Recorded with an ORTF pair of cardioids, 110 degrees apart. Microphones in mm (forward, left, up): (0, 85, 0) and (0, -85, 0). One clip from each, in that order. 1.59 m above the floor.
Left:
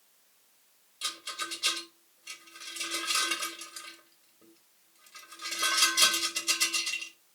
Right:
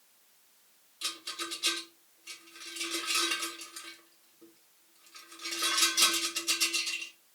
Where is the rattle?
5° left, 4.5 m.